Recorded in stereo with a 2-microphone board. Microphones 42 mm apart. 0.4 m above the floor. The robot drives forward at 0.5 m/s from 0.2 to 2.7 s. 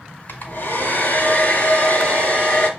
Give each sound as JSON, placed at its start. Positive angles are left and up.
{"t": 0.3, "sound": "a hair dryer", "side_deg": 60, "distance_m": 1.2}